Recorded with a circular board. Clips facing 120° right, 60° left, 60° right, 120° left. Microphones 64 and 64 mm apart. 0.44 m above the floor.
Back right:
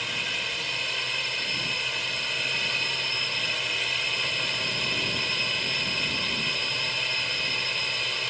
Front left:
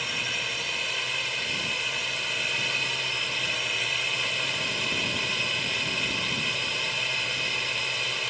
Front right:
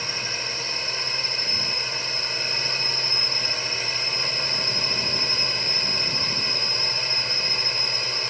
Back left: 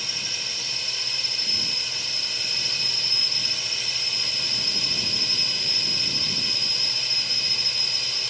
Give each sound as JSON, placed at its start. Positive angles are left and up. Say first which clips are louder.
{"t": 0.0, "sound": "a drone", "louder": "even, front right 4 dB", "azimuth_deg": -30}